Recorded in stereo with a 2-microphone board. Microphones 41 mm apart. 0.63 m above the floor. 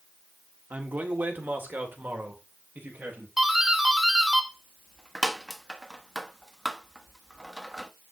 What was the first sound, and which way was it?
A man speaking, 45° right (ahead or behind).